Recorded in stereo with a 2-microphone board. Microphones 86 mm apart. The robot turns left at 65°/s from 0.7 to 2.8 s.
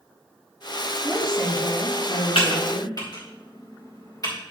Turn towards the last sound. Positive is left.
turn(degrees=40)  # may be behind; listen again after turning